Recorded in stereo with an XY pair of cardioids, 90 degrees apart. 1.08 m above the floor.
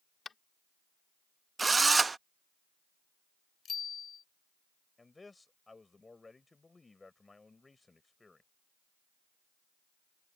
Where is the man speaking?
25° left.